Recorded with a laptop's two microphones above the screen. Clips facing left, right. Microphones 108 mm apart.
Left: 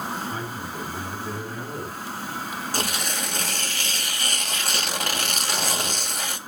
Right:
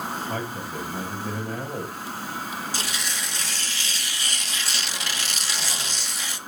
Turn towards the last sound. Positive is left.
turn(degrees=50)  # may be behind; listen again after turning